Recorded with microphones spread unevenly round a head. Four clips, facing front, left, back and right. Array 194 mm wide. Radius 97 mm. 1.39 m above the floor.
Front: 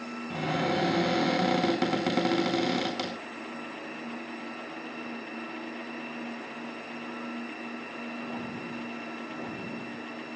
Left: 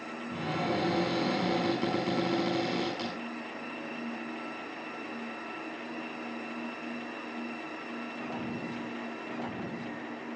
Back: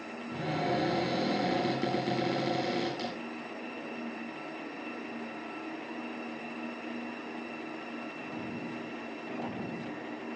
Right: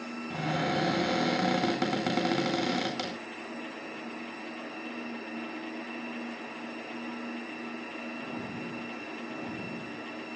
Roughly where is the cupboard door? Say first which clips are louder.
Right 1 dB, front 2 dB; ahead right.